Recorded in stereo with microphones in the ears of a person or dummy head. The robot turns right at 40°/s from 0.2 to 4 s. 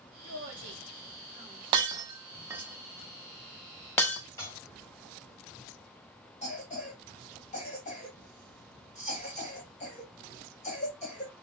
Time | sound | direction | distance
0.2 | a woman speaking | 75° right (ahead or behind) | 1.1 m
1.7 | breaking glass | 25° right (ahead or behind) | 0.6 m
4.4 | dishes clattering | 20° left (ahead or behind) | 1.8 m
6.4 | a cough | 35° left (ahead or behind) | 1.1 m